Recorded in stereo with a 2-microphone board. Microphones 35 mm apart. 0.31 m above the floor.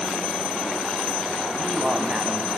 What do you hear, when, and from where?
1.6 s a man speaking: 40° right (ahead or behind), 2 m